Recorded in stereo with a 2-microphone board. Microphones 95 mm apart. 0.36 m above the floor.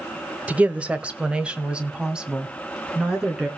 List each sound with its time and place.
0.5 s a woman speaking: 15° right (ahead or behind), 0.9 m; by 3.5 s 10° right (ahead or behind), 3.5 m